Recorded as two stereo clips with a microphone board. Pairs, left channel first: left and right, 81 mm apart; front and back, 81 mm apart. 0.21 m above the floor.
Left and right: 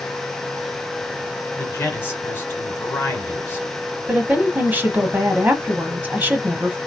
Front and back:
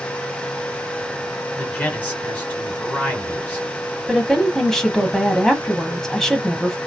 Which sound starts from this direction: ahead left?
A man speaking, at 1.6 s.